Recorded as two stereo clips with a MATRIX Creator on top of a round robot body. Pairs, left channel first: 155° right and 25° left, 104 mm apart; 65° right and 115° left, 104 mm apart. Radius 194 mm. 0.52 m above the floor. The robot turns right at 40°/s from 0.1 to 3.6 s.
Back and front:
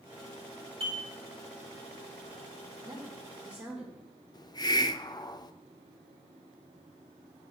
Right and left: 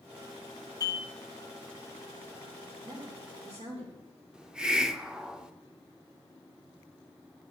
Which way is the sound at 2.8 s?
75° left.